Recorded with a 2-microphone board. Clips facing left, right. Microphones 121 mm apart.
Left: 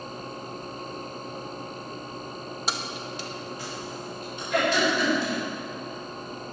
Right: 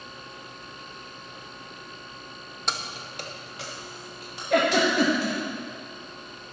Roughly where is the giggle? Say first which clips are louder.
Right 2 dB; right.